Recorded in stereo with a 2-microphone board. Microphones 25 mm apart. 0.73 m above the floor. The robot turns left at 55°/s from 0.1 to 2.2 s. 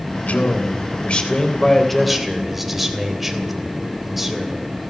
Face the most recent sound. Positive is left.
turn(degrees=-5)